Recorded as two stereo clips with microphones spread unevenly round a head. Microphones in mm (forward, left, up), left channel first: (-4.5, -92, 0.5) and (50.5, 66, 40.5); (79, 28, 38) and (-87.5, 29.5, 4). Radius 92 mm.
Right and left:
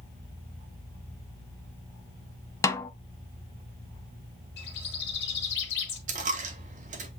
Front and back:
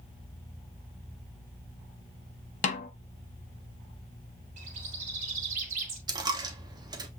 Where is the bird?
130° right, 1.4 m.